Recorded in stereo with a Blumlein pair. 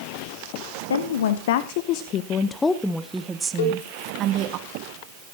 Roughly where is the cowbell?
Ahead left.